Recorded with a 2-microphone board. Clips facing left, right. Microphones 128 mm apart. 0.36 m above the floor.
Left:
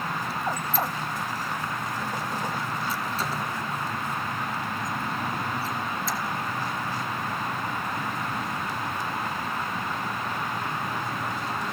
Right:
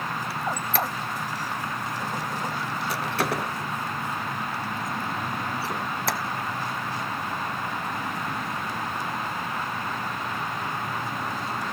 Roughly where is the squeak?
Right.